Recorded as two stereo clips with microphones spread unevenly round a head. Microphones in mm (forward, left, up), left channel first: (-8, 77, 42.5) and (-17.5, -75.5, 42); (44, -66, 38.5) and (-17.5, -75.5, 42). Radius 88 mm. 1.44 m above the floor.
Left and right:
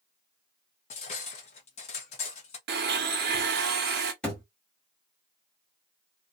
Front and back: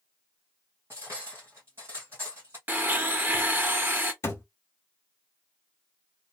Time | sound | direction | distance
0.9 | cutlery clinking | 125° left | 0.8 m
2.7 | a blender | 110° right | 0.8 m
4.2 | a thud | 5° left | 1.0 m